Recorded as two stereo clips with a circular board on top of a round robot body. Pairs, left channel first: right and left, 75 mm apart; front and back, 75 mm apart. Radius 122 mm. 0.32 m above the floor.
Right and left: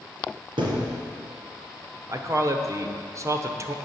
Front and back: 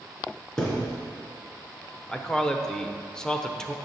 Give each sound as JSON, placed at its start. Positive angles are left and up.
{"t": 0.6, "sound": "a thud", "azimuth_deg": 80, "distance_m": 3.0}
{"t": 2.1, "sound": "a man speaking", "azimuth_deg": 80, "distance_m": 1.3}